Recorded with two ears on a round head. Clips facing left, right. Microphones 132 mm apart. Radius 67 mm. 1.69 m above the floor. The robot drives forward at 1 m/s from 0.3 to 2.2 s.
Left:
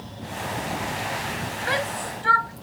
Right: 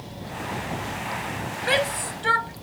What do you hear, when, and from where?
1.6 s a shout: 25° right (ahead or behind)